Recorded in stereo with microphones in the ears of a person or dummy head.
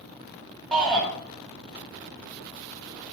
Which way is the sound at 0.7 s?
5° left (ahead or behind).